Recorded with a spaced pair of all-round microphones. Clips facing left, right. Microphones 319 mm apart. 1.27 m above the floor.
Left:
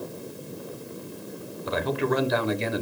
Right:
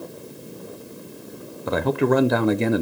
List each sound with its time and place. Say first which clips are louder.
1.7 s a man speaking: right 6 dB; 60° right (ahead or behind), 0.5 m